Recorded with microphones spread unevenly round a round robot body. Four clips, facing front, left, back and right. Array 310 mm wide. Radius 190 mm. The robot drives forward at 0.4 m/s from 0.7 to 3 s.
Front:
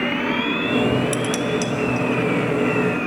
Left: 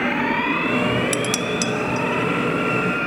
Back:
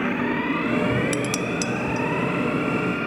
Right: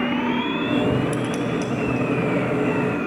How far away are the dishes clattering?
About 0.6 m.